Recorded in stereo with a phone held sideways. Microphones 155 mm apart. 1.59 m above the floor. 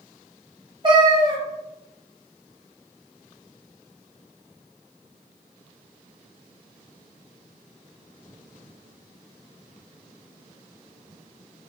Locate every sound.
0.8 s a cat meowing: 30° right (ahead or behind), 1.0 m